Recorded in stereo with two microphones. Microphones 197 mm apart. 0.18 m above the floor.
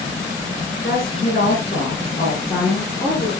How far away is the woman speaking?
About 3 m.